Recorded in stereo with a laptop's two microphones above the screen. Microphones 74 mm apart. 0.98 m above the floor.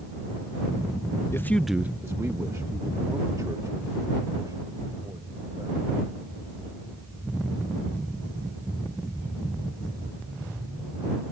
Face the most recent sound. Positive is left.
turn(degrees=-50)  # may be behind; listen again after turning